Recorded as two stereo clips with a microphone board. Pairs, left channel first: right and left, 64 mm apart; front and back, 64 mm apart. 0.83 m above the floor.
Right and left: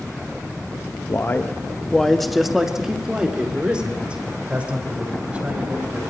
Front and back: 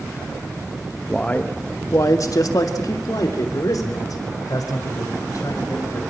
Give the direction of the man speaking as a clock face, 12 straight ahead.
2 o'clock.